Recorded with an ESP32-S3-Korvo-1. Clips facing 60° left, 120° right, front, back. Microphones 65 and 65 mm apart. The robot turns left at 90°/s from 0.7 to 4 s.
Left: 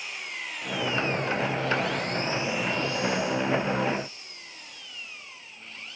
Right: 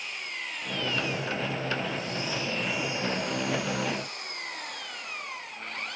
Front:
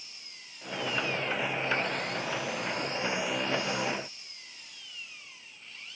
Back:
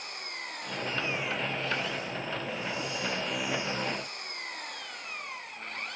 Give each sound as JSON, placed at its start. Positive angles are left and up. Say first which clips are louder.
{"t": 0.0, "sound": "an engine running", "louder": "even, back 13 dB", "azimuth_deg": 150}